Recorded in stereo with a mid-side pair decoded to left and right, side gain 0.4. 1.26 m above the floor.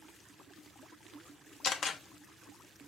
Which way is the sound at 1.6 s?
60° left.